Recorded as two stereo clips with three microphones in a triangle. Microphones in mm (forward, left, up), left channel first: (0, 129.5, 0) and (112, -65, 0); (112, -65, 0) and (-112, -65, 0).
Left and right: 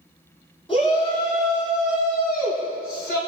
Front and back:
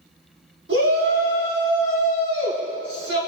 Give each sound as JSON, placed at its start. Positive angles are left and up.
{"t": 0.7, "sound": "a shout", "azimuth_deg": -175, "distance_m": 4.5}